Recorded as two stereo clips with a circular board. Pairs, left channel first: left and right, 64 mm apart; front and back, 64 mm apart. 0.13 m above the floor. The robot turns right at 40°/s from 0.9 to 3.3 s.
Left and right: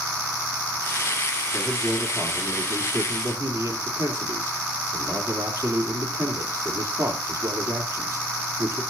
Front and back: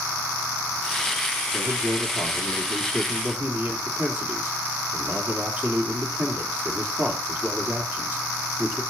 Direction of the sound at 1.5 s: 165° left.